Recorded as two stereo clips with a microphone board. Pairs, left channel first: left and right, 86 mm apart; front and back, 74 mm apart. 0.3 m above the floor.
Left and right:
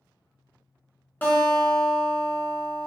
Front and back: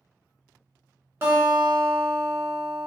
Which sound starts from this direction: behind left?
A guitar, at 1.2 s.